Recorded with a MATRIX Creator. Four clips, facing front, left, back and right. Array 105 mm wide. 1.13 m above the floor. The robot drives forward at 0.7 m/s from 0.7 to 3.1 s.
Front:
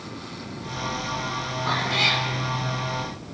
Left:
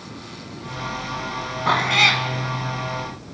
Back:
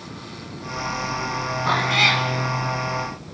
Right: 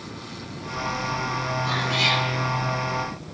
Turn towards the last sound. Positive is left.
turn(degrees=135)